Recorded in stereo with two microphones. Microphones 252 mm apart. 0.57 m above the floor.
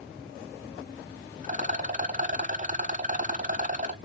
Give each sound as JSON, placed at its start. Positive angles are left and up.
{"t": 1.4, "sound": "a rattle", "side_deg": -30, "distance_m": 0.5}